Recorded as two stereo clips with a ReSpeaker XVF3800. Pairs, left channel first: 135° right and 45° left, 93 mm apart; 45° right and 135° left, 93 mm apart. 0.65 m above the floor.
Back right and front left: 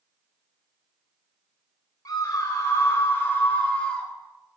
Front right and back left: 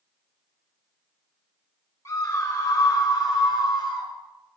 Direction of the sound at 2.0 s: 90° right.